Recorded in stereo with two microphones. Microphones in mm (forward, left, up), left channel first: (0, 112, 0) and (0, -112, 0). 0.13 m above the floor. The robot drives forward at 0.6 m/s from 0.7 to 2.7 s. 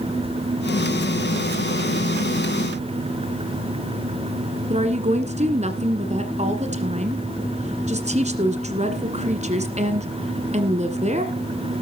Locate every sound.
4.7 s a woman speaking: 30° right (ahead or behind), 1.6 m